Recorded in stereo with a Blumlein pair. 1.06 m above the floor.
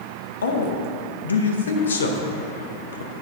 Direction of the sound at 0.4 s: 70° left.